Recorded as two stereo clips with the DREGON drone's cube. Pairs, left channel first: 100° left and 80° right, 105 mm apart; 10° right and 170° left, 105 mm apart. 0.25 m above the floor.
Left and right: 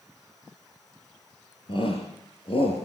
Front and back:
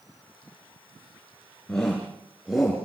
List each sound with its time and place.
1.7 s a shout: 70° left, 5 m; by 2.9 s 85° left, 4.5 m